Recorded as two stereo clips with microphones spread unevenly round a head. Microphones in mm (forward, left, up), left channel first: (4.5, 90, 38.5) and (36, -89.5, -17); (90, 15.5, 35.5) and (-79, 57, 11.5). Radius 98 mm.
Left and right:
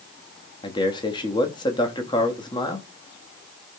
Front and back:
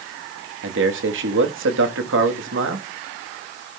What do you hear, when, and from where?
0.6 s a man speaking: 170° left, 1.3 m